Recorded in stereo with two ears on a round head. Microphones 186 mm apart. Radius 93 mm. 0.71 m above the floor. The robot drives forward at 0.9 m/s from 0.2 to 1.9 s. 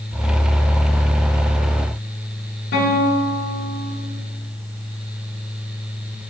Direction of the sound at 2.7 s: 50° left (ahead or behind).